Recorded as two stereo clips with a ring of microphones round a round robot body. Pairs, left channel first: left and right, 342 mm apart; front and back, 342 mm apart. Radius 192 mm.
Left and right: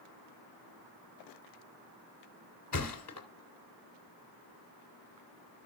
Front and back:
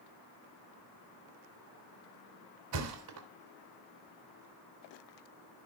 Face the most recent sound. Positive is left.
turn(degrees=135)